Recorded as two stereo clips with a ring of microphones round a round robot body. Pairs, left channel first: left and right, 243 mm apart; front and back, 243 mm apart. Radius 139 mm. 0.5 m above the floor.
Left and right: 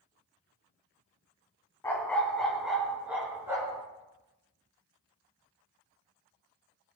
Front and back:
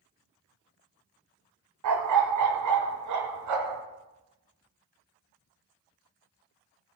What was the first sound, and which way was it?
A dog barking, 170° left.